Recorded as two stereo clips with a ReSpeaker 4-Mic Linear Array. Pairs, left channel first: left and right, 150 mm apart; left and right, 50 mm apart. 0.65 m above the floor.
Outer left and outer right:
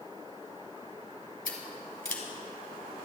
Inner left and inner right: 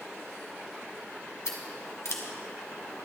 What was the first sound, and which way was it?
Scissors, 70° left (ahead or behind).